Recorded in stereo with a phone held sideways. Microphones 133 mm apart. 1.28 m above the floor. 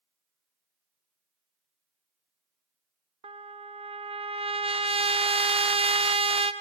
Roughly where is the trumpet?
Right.